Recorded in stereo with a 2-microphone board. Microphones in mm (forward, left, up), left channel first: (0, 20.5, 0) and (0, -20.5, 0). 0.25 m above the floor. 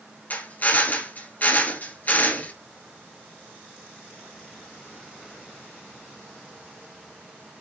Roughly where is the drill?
Left.